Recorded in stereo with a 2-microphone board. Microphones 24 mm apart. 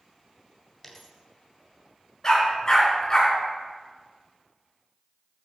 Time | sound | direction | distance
0.8 | a dropped coin | 10° left (ahead or behind) | 1.8 m
2.2 | a dog barking | 25° left (ahead or behind) | 4 m